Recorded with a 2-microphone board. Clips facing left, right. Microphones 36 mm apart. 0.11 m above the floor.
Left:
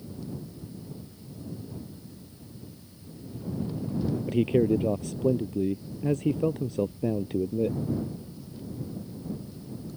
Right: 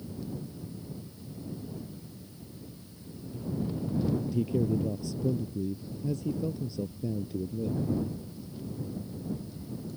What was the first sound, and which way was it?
A man speaking, 60° left (ahead or behind).